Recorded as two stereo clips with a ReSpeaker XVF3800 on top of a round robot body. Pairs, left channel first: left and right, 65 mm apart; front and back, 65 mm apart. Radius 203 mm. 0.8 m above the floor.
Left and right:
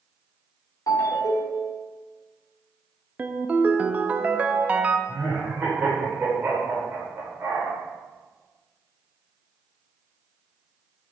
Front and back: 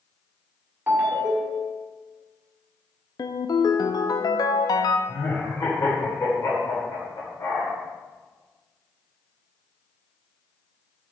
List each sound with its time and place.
0.9 s a ringtone: 110° left, 2.5 m
3.2 s a ringtone: 20° right, 0.6 m
5.1 s laughter: 25° right, 3.5 m